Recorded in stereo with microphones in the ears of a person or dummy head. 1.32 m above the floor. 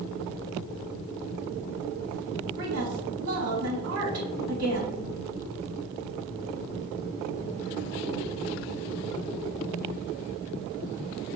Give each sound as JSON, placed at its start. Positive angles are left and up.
{"t": 2.6, "sound": "a woman speaking", "side_deg": -60, "distance_m": 1.3}